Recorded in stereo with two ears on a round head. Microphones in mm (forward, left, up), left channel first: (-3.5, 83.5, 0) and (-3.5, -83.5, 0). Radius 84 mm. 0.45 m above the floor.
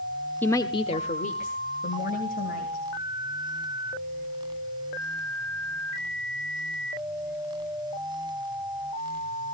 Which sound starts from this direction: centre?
A woman speaking, at 0.4 s.